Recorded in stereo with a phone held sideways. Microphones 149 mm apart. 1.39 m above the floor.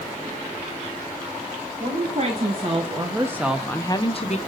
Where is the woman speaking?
50° right (ahead or behind), 1.9 m; by 4.4 s 50° left (ahead or behind), 0.9 m.